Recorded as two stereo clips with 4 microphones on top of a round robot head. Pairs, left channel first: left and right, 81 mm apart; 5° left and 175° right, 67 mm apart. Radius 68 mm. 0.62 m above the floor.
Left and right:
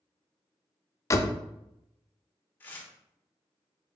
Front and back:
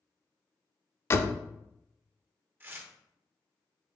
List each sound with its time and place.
1.1 s a door slam: 50° left, 0.6 m
2.6 s tearing paper: 145° left, 0.9 m